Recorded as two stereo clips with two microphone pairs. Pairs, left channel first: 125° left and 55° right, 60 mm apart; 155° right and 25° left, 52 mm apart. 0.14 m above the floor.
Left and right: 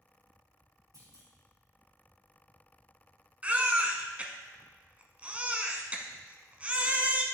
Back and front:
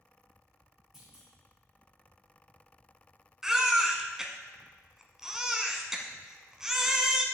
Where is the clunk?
55° right, 3 m.